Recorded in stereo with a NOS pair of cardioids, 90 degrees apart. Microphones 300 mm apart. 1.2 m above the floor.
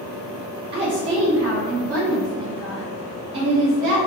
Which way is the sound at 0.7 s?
35° right.